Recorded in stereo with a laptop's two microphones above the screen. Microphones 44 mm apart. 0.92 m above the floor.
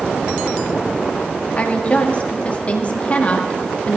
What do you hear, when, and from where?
1.6 s a woman speaking: 30° left (ahead or behind), 2 m